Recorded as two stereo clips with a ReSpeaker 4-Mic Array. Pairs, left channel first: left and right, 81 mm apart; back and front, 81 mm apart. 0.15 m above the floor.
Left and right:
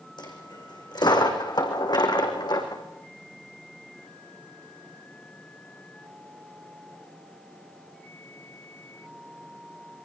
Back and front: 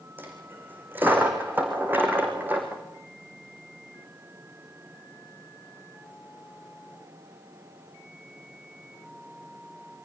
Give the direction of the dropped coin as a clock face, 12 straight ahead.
10 o'clock.